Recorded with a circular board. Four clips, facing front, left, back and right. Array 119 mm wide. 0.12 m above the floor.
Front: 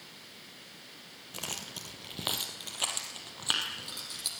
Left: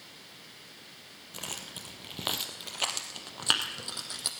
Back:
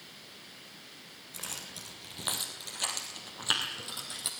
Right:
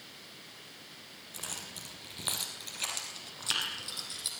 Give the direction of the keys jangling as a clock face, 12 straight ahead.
11 o'clock.